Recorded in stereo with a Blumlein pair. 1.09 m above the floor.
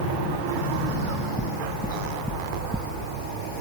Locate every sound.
0.9 s knocking: 5° left